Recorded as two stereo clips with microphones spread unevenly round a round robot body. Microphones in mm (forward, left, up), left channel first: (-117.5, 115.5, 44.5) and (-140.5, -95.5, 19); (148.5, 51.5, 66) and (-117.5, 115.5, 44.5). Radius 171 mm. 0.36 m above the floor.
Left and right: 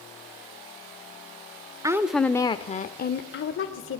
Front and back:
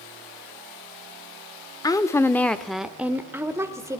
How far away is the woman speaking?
About 0.8 m.